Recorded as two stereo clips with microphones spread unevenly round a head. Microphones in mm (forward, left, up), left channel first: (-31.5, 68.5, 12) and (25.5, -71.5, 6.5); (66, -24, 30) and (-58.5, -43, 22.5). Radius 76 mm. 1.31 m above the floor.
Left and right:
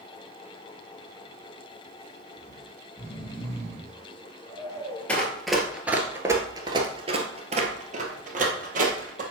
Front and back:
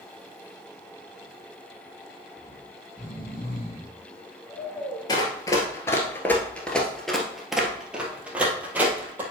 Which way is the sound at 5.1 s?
40° left.